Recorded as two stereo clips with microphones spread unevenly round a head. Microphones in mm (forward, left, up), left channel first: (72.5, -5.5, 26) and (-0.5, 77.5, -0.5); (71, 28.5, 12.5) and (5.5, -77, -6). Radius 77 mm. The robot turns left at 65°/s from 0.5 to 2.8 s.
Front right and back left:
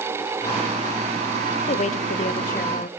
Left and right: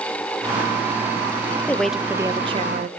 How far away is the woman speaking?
About 0.8 m.